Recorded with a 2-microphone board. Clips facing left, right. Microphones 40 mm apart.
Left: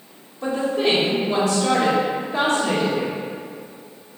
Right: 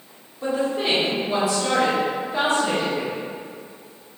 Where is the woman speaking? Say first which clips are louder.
Left 2 dB; 10° right (ahead or behind), 0.9 m.